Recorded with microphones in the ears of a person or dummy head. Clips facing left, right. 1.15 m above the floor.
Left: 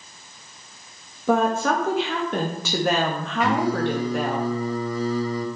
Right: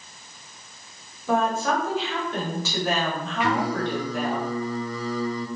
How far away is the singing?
About 4 m.